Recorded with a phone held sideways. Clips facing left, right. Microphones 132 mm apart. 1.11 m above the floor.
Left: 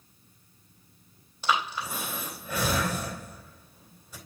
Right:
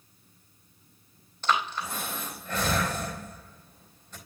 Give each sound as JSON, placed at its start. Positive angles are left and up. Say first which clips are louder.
{"t": 1.4, "sound": "breathing", "louder": "even", "side_deg": 10, "distance_m": 3.5}